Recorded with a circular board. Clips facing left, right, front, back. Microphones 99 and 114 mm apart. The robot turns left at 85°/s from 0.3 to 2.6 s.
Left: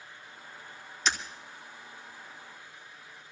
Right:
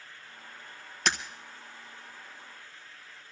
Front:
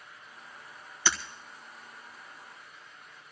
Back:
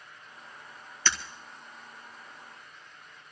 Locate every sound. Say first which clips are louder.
1.1 s breaking glass: right 1 dB, front 1 dB; 80° right, 1.4 m; by 1.2 s 85° right, 1.4 m